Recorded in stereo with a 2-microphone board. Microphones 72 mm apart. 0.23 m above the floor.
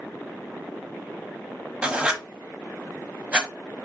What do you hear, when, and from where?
1.8 s writing: 15° right (ahead or behind), 0.9 m